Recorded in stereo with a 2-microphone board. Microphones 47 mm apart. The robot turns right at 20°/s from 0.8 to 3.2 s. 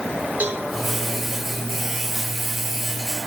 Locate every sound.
0.4 s a cowbell: 35° right (ahead or behind), 2.5 m